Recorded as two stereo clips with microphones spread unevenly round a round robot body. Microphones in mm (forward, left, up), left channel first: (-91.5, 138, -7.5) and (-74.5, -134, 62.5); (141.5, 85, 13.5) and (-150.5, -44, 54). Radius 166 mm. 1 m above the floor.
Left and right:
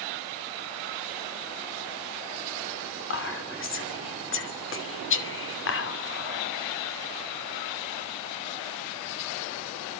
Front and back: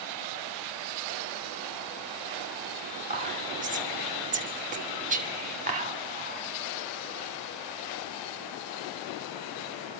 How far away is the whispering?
About 2.5 m.